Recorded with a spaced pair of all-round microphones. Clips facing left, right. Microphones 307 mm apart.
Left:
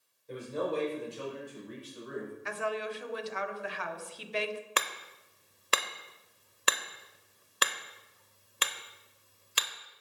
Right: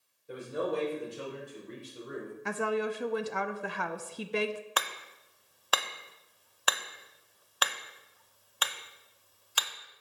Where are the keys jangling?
I don't hear keys jangling.